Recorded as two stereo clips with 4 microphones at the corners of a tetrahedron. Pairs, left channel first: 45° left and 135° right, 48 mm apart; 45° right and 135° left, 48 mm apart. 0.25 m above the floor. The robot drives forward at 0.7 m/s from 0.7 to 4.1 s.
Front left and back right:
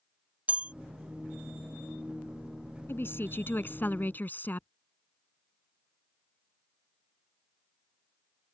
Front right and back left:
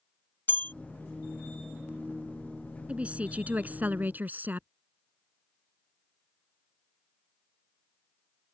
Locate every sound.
0.5 s a bell: 80° right; by 0.7 s 85° right
2.9 s a woman speaking: 70° left; by 4.7 s 85° left